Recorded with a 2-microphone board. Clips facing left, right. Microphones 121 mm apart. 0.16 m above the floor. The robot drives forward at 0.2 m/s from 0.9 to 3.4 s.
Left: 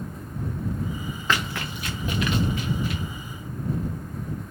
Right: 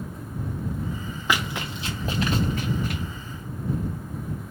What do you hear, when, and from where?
1.3 s running footsteps: 10° right (ahead or behind), 1.0 m; by 3.0 s 50° right (ahead or behind), 1.2 m